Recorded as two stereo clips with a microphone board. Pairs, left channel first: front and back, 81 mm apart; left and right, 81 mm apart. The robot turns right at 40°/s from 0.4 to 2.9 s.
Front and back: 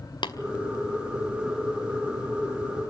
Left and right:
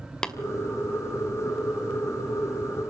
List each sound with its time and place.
0.2 s tapping: 10° left, 2 m